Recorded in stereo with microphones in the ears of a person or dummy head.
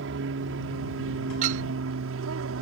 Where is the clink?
45° right (ahead or behind).